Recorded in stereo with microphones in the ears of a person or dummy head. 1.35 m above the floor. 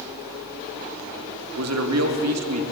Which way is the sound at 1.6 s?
80° right.